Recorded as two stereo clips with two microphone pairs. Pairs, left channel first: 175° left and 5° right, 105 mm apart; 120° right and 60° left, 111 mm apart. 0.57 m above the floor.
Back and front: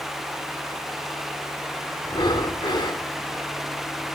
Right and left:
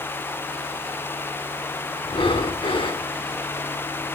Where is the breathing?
145° right, 1.1 m.